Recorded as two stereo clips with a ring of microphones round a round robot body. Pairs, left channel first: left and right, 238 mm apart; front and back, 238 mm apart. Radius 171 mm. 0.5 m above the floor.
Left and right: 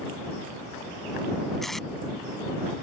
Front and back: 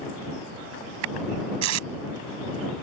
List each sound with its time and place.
1.6 s tape being pulled: straight behind